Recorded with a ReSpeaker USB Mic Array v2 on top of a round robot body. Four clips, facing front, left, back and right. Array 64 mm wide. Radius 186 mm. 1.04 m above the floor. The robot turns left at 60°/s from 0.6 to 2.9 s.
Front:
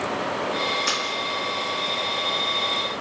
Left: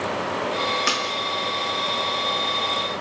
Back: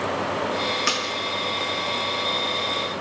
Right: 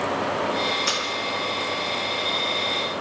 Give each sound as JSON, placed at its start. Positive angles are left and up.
{"t": 0.9, "sound": "a splash", "azimuth_deg": 130, "distance_m": 2.5}